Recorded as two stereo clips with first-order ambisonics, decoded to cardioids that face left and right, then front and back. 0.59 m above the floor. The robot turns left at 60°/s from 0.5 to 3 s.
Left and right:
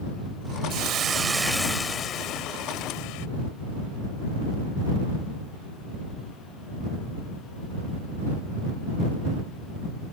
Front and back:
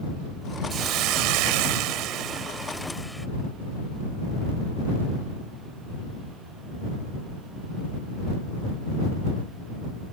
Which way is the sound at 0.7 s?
130° right.